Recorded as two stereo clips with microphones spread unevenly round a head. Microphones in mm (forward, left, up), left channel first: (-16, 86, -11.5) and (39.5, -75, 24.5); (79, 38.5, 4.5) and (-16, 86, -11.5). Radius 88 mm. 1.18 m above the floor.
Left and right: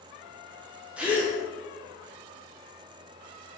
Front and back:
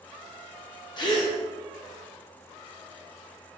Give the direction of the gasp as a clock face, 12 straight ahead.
11 o'clock.